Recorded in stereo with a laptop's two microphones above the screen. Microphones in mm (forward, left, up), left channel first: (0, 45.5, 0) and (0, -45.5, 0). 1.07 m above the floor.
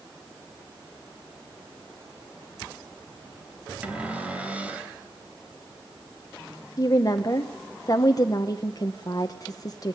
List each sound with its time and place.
3.8 s a cupboard door: 15° right (ahead or behind), 2.0 m
6.8 s a woman speaking: 40° left (ahead or behind), 0.8 m